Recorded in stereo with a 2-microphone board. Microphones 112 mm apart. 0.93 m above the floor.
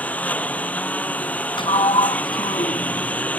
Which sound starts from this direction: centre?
A lawn mower, at 0.0 s.